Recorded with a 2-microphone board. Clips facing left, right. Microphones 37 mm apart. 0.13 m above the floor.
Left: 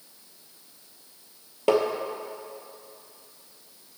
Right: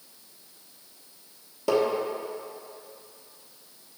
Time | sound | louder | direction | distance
1.7 | tapping | left 2 dB | 45° left (ahead or behind) | 0.9 m